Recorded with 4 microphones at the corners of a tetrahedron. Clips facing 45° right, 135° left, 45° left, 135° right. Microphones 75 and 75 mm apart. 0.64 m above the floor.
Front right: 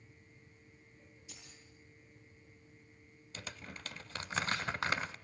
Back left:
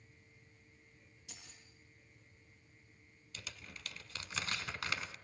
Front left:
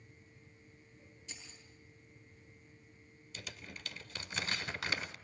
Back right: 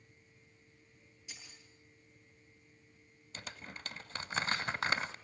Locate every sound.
1.3 s keys jangling: 145° left, 9.5 m
3.3 s crumpling: 95° right, 1.0 m